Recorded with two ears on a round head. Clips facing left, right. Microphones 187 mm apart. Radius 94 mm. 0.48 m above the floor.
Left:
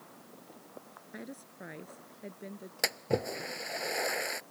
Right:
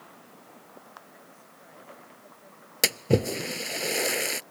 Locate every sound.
1.1 s a woman speaking: 75° left (ahead or behind); by 2.7 s 80° left
2.8 s a splash: 45° right (ahead or behind)